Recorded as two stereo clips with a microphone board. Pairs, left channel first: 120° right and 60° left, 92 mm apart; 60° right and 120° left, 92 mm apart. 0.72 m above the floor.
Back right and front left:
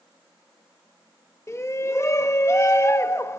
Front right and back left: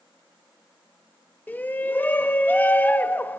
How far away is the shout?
About 0.6 m.